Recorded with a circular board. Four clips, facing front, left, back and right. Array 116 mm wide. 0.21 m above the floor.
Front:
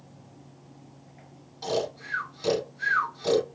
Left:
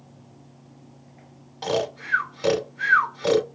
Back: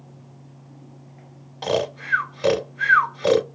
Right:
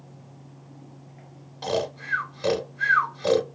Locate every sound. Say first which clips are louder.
1.6 s snoring: left 2 dB, back 5 dB; 170° left, 0.8 m